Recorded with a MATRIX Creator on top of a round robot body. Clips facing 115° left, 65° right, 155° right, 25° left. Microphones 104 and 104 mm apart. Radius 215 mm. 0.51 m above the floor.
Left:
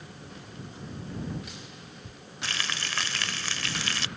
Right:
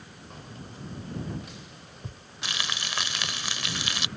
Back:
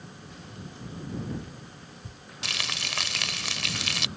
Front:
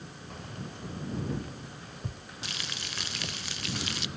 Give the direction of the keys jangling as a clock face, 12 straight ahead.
1 o'clock.